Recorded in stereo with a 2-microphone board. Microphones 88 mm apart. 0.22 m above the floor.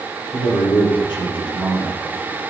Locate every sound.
0.3 s a man speaking: 65° left (ahead or behind), 5 m